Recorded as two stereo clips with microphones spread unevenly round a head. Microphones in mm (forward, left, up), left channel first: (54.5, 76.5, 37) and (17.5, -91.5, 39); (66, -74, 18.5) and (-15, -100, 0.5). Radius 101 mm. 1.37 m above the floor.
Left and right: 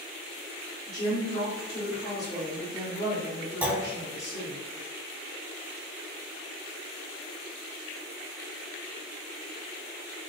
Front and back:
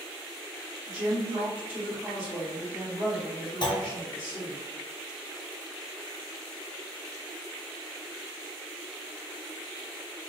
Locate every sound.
0.9 s a woman speaking: 135° left, 1.6 m
3.6 s a clunk: 20° right, 0.6 m